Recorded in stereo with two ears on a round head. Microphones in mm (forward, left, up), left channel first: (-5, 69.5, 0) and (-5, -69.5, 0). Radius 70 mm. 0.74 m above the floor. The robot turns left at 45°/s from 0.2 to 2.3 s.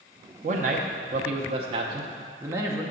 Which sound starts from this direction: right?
A man speaking, at 0.4 s.